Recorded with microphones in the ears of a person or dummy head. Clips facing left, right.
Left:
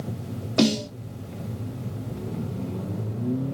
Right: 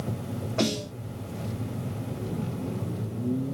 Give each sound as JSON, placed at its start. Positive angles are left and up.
{"t": 0.6, "sound": "a snare drum", "side_deg": 50, "distance_m": 1.2}